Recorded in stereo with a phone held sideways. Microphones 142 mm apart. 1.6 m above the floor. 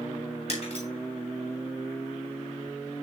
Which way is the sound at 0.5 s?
50° left (ahead or behind).